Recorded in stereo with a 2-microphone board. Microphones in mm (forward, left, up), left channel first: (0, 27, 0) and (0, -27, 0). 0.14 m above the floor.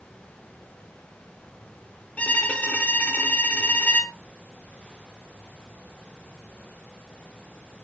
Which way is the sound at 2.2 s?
30° left (ahead or behind).